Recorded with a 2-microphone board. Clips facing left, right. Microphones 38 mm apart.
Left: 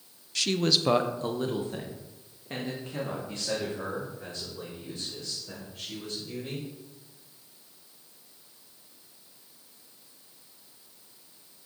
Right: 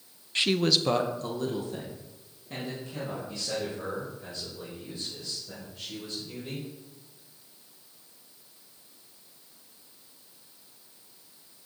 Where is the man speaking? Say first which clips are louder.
Right 1 dB; 30° right (ahead or behind), 0.6 m; by 6.7 s 45° left (ahead or behind), 7.5 m.